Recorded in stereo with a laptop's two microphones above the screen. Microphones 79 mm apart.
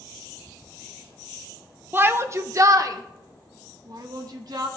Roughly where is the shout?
Right.